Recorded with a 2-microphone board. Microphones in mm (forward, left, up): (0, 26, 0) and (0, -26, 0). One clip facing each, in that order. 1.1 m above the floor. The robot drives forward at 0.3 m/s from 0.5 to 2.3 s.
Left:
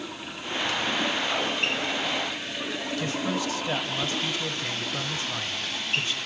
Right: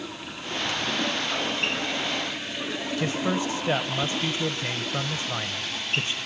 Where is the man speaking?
30° right (ahead or behind), 0.9 m.